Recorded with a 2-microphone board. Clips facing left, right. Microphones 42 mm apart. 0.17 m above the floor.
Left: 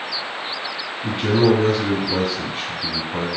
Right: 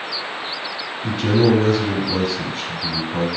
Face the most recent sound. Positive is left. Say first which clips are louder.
# even
turn(degrees=25)  # may be behind; listen again after turning